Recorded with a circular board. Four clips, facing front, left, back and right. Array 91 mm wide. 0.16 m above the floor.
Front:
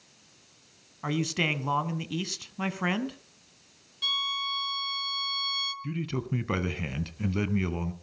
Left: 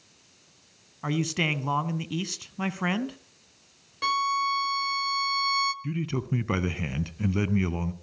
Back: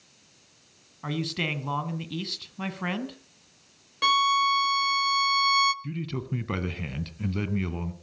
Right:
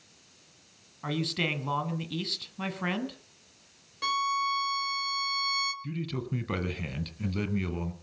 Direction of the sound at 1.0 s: 60° left.